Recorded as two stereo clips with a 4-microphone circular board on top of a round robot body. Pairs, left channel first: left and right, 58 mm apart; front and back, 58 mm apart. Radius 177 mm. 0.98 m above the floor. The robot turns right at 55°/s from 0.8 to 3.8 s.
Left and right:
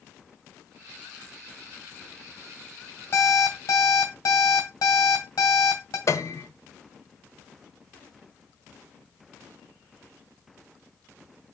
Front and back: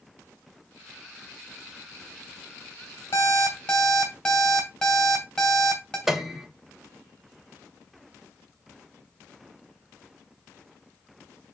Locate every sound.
3.1 s an alarm clock: 40° left, 2.5 m; by 6.0 s 75° left, 2.5 m
6.1 s a piano: 95° left, 1.1 m